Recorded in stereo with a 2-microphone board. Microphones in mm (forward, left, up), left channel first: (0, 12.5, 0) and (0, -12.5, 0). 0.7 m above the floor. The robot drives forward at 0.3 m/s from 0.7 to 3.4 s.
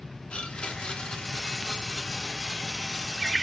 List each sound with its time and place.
0.3 s a blender: 50° left (ahead or behind), 0.7 m; by 3.4 s 25° left (ahead or behind), 1.3 m